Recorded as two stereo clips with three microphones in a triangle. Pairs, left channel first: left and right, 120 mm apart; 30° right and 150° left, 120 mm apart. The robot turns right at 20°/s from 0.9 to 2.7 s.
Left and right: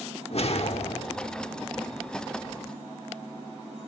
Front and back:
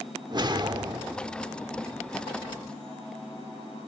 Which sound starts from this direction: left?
A whoosh, at 0.3 s.